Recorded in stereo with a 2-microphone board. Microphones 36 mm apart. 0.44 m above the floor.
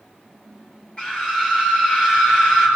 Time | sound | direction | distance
1.0 | a scream | 30° left (ahead or behind) | 7 m